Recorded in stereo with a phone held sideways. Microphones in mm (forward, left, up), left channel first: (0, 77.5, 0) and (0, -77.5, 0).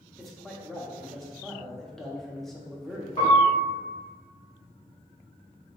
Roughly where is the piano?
Left.